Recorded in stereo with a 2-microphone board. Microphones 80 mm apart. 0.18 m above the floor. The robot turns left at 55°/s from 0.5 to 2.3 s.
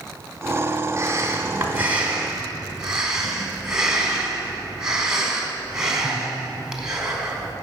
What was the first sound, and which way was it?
Breathing, 90° right.